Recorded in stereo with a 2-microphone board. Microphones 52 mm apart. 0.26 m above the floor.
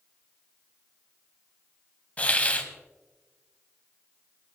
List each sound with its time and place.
2.2 s a hiss: 30° left (ahead or behind), 1.0 m